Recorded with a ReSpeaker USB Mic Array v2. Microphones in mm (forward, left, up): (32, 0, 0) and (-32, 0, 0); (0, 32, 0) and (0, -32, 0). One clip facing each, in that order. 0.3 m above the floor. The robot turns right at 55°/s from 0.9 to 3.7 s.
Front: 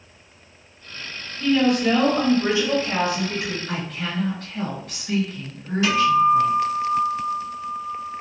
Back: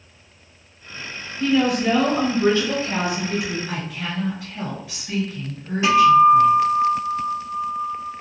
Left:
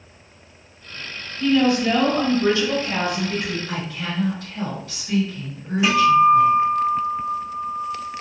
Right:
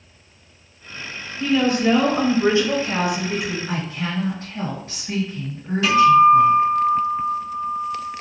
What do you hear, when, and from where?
1.4 s a woman speaking: 125° right, 1.0 m; by 3.6 s 5° right, 1.0 m
3.7 s a woman speaking: 110° right, 1.5 m
5.8 s a guitar: 145° left, 1.8 m